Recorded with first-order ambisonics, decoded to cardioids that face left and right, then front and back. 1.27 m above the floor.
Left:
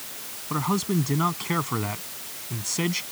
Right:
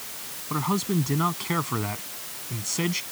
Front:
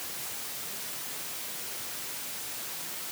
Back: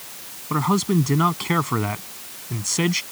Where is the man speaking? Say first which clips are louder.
Left 1 dB, back 19 dB; straight behind.